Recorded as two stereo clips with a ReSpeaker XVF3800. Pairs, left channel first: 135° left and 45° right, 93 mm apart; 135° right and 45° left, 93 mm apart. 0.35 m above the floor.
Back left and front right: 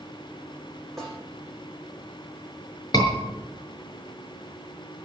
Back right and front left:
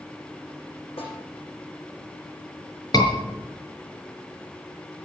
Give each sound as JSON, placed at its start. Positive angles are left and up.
{"t": 1.0, "sound": "a snare drum", "azimuth_deg": -140, "distance_m": 10.0}
{"t": 2.9, "sound": "a scream", "azimuth_deg": 180, "distance_m": 5.5}